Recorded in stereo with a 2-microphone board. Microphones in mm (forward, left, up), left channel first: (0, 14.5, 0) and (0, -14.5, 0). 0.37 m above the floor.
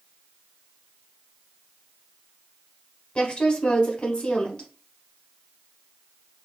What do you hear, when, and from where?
3.1 s a woman speaking: 35° left (ahead or behind), 1.1 m